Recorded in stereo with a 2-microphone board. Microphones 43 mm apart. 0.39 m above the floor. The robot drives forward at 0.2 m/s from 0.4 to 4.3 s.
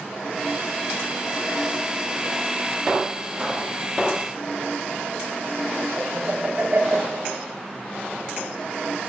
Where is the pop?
20° right (ahead or behind), 1.8 m.